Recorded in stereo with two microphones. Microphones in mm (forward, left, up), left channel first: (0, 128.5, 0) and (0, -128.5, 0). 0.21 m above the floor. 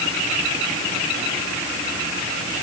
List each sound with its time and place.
Only background noise.